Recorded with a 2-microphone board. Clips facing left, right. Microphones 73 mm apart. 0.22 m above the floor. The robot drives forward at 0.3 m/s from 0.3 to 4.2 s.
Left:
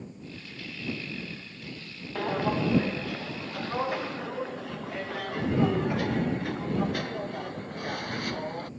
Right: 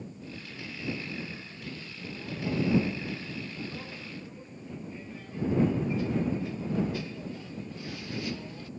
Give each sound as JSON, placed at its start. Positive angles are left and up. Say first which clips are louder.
{"t": 2.1, "sound": "footsteps", "louder": "left 5 dB", "side_deg": 80}